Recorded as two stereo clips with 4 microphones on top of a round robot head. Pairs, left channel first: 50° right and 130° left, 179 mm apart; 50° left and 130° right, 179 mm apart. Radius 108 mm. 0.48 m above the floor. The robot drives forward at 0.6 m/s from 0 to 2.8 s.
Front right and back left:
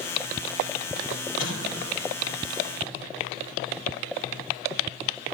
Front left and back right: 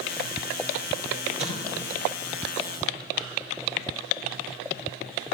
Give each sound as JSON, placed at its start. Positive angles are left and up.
{"t": 1.4, "sound": "an explosion", "azimuth_deg": -75, "distance_m": 4.0}